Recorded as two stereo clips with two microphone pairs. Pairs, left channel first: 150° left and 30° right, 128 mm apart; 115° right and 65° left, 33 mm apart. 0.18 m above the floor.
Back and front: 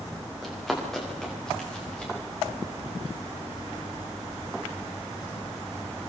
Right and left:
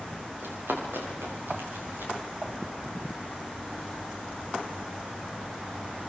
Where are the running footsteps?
65° left, 7.5 m; by 2.1 s 70° left, 8.5 m.